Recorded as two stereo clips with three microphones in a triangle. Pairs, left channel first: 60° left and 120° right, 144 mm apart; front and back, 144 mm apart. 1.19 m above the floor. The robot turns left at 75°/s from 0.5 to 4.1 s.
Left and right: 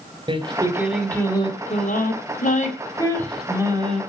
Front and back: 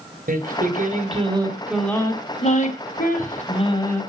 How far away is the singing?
About 3 m.